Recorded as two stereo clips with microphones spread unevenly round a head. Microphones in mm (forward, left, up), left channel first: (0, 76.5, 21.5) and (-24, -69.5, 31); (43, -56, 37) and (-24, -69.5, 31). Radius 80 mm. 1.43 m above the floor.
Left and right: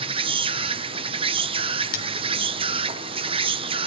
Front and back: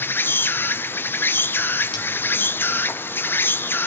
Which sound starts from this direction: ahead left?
Cutlery clinking, at 1.9 s.